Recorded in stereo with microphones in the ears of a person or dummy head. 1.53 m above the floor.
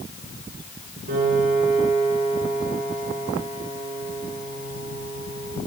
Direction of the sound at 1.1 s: 50° right (ahead or behind).